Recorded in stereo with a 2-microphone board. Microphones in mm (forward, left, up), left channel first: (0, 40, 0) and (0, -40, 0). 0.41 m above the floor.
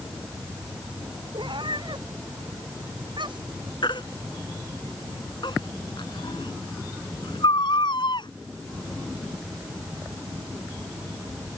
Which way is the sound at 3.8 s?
75° left (ahead or behind).